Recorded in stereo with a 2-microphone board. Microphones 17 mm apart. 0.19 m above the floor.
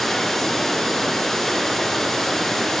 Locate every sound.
0.0 s running water: 15° left (ahead or behind), 1.7 m